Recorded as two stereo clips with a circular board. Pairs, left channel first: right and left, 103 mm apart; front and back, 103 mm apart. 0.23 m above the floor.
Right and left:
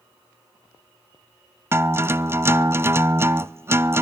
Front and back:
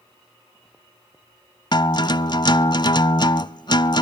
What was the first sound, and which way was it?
A guitar, 30° left.